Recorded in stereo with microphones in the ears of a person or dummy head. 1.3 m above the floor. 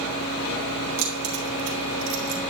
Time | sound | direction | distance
1.0 | keys jangling | 75° right (ahead or behind) | 2.5 m